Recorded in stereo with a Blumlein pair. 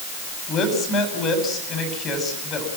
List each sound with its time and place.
0.5 s a woman speaking: 25° left, 9.5 m